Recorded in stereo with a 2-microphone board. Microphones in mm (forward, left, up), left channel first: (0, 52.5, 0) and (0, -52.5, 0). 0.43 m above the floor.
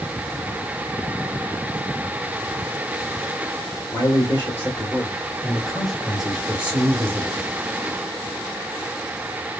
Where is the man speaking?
35° left (ahead or behind), 1.7 m; by 7.5 s 25° right (ahead or behind), 1.6 m.